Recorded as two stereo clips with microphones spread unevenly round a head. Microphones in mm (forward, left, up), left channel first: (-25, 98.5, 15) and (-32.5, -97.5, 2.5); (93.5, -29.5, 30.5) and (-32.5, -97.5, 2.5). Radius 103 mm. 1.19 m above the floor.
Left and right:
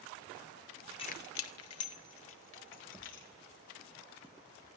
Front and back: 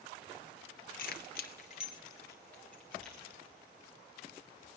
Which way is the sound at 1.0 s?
20° left.